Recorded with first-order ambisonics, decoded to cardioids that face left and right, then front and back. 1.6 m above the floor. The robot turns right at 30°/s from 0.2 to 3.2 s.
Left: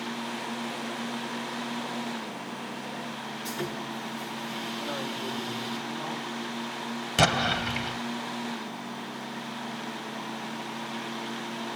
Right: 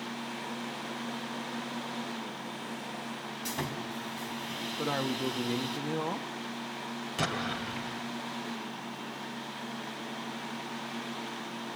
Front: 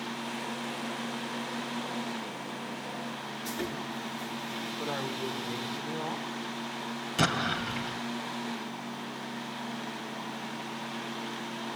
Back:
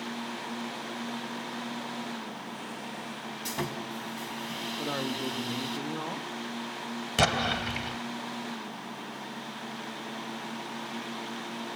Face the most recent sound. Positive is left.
turn(degrees=130)